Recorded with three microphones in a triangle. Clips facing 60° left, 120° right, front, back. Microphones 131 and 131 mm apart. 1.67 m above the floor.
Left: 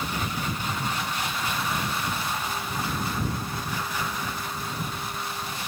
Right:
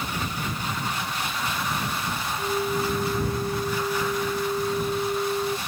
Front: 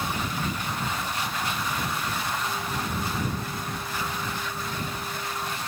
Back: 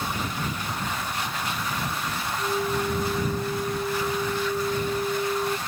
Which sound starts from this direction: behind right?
A flute, at 2.4 s.